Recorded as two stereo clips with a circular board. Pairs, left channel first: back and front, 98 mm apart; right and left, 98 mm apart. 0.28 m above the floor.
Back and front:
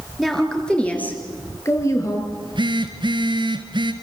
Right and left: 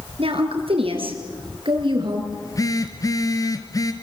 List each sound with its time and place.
0.2 s a woman speaking: 90° left, 5 m; by 2.2 s 125° left, 5.5 m
2.3 s a phone buzzing: 35° right, 2 m